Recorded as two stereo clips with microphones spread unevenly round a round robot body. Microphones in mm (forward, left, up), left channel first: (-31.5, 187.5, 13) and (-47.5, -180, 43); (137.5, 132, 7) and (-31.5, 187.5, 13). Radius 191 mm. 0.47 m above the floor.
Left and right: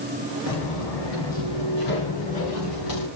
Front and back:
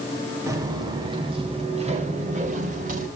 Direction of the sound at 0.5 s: 90° left.